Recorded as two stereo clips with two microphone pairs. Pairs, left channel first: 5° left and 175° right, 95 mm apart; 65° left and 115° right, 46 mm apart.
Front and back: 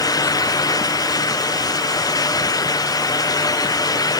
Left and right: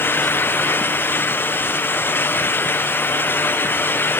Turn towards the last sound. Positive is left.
No sound to turn to.